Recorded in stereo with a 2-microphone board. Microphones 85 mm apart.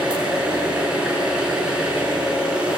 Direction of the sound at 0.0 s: 10° right (ahead or behind).